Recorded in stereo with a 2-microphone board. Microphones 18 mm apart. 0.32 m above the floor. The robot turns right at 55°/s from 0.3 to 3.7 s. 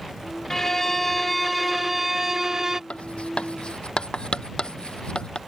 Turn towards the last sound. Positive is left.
turn(degrees=60)  # may be behind; listen again after turning